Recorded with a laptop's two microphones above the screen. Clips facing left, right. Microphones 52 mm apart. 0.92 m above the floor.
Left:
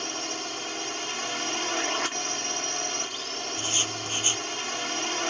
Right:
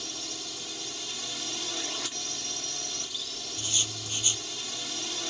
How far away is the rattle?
I don't hear a rattle.